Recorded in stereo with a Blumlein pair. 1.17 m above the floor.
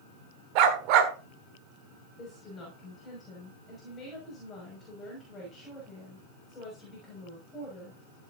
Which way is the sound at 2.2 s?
20° left.